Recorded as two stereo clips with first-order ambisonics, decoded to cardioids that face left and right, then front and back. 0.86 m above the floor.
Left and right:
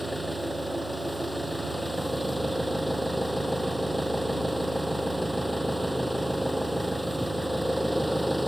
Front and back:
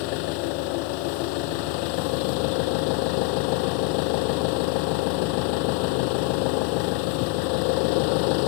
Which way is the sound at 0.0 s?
Straight ahead.